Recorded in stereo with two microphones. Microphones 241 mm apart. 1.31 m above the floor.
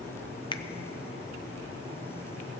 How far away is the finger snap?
About 0.5 m.